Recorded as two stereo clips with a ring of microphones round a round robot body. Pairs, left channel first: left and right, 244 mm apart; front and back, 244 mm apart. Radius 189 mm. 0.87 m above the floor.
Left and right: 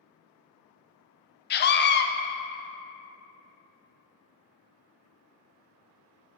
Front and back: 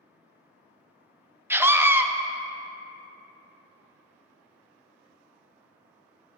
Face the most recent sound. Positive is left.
turn(degrees=100)